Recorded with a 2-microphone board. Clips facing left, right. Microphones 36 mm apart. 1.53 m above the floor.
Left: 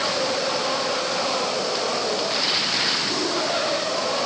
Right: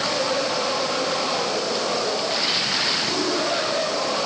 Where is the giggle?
I don't hear a giggle.